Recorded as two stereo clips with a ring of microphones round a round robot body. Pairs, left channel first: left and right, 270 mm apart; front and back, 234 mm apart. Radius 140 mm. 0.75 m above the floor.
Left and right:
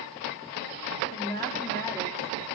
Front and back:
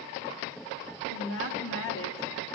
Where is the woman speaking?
15° left, 1.9 m.